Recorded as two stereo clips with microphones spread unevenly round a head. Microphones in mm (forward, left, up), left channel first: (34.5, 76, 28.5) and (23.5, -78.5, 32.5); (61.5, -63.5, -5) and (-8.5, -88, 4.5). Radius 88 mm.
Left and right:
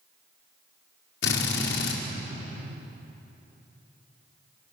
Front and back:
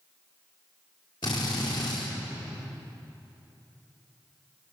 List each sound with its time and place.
1.2 s a drill: 85° left, 4.5 m